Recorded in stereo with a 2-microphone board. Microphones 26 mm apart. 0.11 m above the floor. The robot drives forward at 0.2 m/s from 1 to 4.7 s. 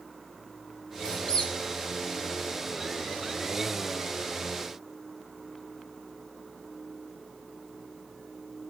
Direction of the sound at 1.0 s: 35° left (ahead or behind).